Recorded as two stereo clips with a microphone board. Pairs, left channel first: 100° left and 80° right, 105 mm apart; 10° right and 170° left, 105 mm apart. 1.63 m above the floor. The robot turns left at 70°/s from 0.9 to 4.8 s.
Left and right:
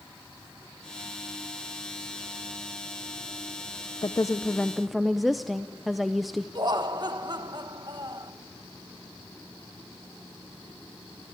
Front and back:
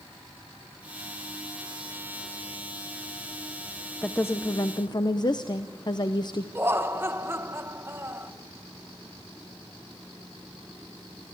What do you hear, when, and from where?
4.0 s a woman speaking: 65° left, 0.6 m; by 6.5 s 10° left, 0.6 m
6.5 s laughter: 120° right, 1.4 m